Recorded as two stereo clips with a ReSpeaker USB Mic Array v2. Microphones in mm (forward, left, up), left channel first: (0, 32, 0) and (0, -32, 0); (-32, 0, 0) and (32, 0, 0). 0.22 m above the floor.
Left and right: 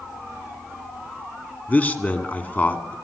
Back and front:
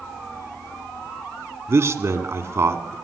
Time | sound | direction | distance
1.7 | a man speaking | 30° left | 1.8 m